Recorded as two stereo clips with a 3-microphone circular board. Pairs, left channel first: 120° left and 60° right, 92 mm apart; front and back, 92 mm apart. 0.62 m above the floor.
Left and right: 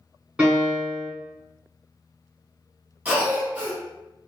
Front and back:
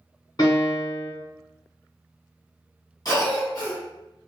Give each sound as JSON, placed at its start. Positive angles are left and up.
{"t": 0.4, "sound": "a piano", "azimuth_deg": 10, "distance_m": 1.4}
{"t": 3.0, "sound": "a cough", "azimuth_deg": 5, "distance_m": 1.6}